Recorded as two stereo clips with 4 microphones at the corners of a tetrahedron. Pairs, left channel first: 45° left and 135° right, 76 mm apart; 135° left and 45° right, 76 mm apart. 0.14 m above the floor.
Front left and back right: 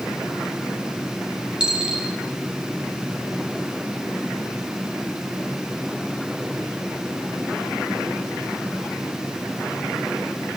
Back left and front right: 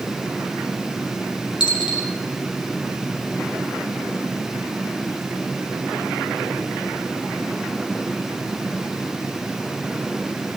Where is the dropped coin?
145° left, 5.5 m.